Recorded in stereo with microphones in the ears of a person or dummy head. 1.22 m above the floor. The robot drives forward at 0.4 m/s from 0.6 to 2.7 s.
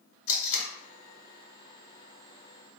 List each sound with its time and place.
0.3 s tape being pulled: 45° left (ahead or behind), 1.5 m